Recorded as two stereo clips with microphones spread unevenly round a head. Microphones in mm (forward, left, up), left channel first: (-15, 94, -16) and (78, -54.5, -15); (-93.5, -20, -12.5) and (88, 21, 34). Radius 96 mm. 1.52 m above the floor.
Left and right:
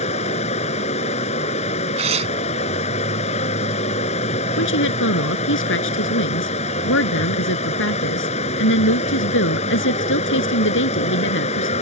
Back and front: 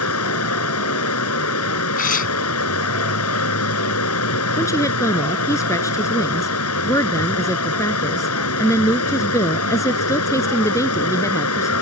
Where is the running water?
Straight behind.